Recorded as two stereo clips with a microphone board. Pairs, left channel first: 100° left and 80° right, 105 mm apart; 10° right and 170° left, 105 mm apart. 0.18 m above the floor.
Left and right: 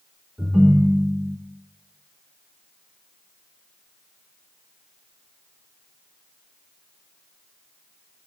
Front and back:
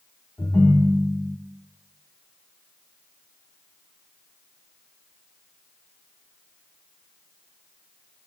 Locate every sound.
0.4 s a ringtone: straight ahead, 0.8 m